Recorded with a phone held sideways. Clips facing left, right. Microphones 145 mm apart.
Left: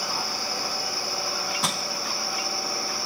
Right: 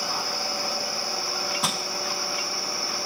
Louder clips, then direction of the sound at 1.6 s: Left 1 dB; centre (ahead or behind).